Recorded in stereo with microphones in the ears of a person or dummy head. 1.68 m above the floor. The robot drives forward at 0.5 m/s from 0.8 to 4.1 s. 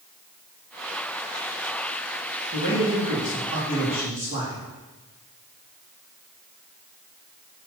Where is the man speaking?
50° right (ahead or behind), 2.5 m; by 4.7 s 40° right (ahead or behind), 3 m.